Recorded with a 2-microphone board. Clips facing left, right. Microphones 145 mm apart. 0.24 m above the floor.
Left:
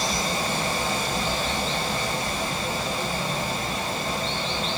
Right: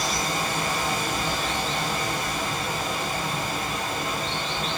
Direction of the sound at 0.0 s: 30° left (ahead or behind).